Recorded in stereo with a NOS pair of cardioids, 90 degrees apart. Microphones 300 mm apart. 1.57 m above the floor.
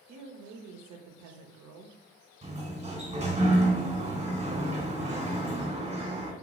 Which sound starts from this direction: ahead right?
A woman speaking, at 0.1 s.